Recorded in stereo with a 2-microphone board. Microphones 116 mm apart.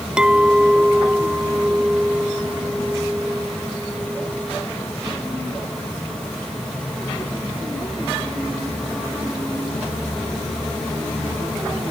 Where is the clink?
10° right (ahead or behind).